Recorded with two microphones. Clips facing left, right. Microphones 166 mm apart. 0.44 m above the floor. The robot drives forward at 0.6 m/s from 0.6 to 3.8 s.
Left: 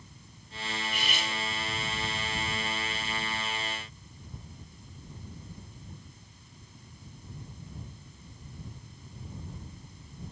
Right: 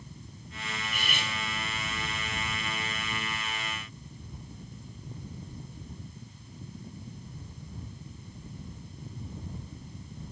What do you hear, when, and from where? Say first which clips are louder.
0.8 s cutlery clinking: left 1 dB; 45° right (ahead or behind), 2.0 m; by 1.3 s 50° right (ahead or behind), 1.8 m